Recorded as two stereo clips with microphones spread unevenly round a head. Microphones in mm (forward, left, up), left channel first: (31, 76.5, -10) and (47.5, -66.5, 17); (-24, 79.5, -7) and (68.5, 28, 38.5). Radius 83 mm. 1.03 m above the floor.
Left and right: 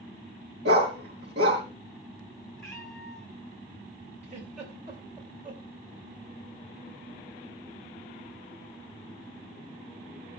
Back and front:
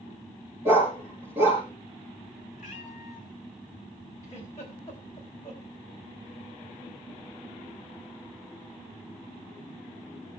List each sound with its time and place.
0.7 s a dog barking: 105° right, 6 m
2.6 s a cat meowing: 175° right, 4 m
4.2 s a giggle: 135° right, 3.5 m